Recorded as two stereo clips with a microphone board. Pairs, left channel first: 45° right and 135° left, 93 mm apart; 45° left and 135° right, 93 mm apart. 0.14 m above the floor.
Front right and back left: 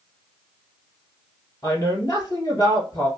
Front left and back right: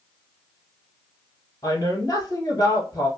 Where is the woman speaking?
5° right, 2.5 m.